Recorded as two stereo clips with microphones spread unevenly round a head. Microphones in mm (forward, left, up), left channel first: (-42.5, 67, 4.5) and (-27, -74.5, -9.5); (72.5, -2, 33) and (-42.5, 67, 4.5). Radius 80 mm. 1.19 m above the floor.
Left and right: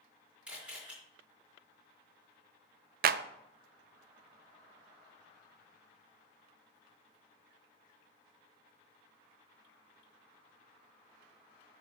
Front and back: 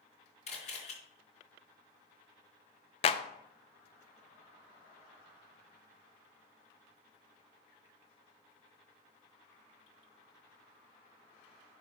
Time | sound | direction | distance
0.5 | a camera shutter | straight ahead | 4.5 m
3.0 | a clap | 85° right | 0.6 m